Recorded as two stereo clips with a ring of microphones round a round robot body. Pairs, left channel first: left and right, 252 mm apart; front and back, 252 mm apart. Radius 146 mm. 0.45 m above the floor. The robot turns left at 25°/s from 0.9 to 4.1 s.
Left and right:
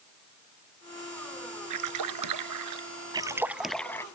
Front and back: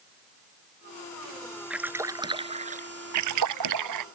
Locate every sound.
1.7 s a splash: 95° right; by 2.9 s 125° right
3.1 s a splash: 165° right; by 4.0 s 170° left